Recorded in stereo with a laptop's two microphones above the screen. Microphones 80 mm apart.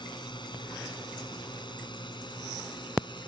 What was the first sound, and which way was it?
A drone, 80° left.